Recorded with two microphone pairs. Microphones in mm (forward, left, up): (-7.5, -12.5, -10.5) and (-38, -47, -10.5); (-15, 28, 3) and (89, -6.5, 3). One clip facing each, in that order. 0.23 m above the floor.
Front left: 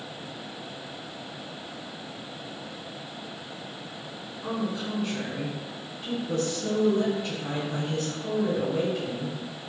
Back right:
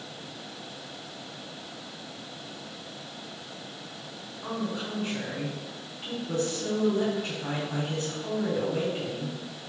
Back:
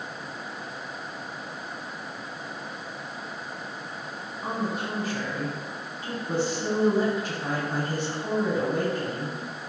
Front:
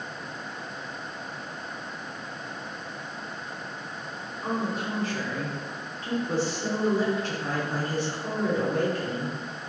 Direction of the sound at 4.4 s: 125° right.